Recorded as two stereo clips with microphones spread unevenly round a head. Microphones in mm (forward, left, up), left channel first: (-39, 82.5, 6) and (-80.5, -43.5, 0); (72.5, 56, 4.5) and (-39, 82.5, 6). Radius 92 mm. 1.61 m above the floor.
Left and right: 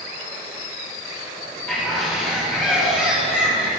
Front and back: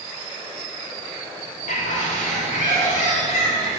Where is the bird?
10° right, 2 m.